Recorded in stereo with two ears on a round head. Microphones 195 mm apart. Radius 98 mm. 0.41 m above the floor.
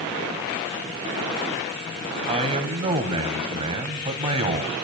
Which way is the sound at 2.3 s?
30° right (ahead or behind).